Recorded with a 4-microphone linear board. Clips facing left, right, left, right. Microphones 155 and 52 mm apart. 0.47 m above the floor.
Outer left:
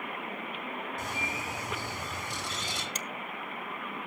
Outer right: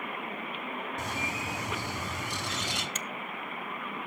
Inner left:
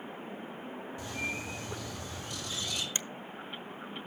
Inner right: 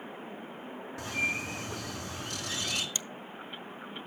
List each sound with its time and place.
1.0 s a bird: 75° right (ahead or behind), 2.5 m
3.0 s a finger snap: 35° left (ahead or behind), 0.7 m